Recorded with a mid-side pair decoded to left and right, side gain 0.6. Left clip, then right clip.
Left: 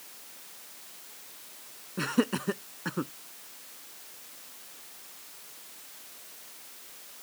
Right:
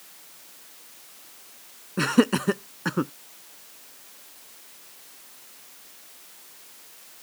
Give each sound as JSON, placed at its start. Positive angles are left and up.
{"t": 2.0, "sound": "laughter", "azimuth_deg": -40}